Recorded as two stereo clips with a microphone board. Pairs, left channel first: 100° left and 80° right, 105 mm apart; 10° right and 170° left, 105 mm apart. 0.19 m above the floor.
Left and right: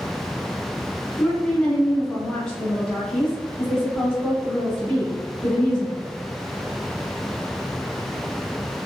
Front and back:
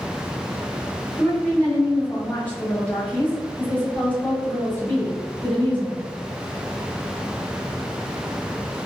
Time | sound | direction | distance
1.2 | a woman speaking | 35° left | 1.0 m